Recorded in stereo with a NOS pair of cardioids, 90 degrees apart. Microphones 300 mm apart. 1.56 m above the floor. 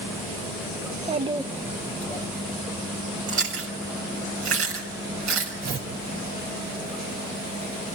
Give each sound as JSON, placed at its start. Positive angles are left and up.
{"t": 0.8, "sound": "a child speaking", "azimuth_deg": -30, "distance_m": 1.5}
{"t": 3.3, "sound": "chewing", "azimuth_deg": -55, "distance_m": 5.5}
{"t": 5.6, "sound": "tearing paper", "azimuth_deg": -65, "distance_m": 4.0}